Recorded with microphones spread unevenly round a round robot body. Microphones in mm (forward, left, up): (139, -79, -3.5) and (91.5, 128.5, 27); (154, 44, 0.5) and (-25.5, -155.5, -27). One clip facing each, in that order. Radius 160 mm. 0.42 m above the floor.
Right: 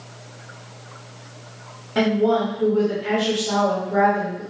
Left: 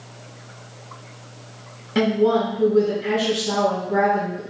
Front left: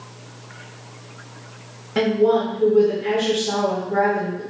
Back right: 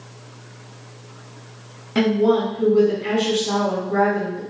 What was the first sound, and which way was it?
A woman speaking, 175° left.